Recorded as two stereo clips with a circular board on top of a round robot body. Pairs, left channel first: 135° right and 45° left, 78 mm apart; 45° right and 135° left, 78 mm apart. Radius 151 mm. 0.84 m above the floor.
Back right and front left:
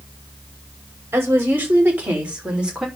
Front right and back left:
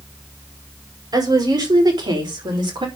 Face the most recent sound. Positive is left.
turn(degrees=125)